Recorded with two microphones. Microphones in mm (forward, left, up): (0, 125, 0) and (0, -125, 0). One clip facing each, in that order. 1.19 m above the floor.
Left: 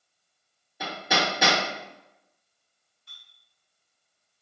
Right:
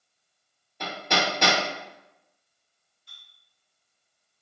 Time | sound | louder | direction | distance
0.8 | hammering | even | 5° left (ahead or behind) | 0.9 m
3.1 | a clink | even | 60° left (ahead or behind) | 1.4 m